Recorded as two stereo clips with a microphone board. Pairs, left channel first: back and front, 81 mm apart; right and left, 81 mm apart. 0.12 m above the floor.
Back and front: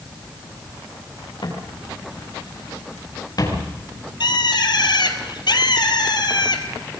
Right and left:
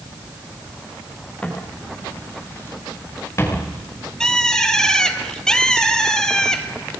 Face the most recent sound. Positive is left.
turn(degrees=-170)